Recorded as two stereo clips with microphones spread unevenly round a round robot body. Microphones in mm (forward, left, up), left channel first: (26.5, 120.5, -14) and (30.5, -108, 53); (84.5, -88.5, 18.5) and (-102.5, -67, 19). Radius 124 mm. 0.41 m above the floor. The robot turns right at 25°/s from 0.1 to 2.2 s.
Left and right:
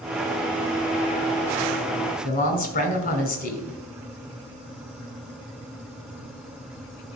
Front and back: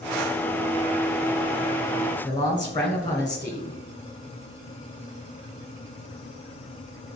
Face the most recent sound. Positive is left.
turn(degrees=65)